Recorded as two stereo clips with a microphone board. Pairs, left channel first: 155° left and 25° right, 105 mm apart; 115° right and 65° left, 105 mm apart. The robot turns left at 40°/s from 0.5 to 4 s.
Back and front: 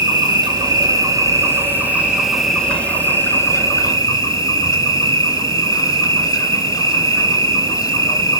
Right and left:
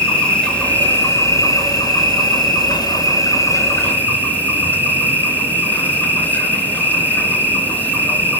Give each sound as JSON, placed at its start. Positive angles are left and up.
{"t": 0.0, "sound": "an insect", "azimuth_deg": -35, "distance_m": 2.0}